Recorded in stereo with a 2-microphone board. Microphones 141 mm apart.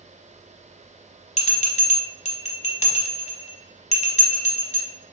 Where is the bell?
55° left (ahead or behind), 0.8 m.